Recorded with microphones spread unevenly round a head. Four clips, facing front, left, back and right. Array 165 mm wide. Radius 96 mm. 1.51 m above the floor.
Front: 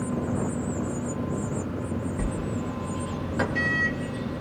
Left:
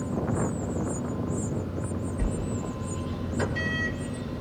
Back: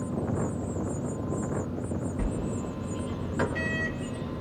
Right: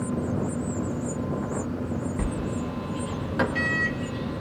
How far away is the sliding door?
About 0.8 m.